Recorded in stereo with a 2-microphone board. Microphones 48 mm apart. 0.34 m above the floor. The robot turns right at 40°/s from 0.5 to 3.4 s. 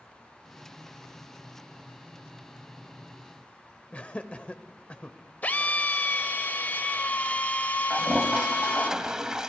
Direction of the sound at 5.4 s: 35° left (ahead or behind).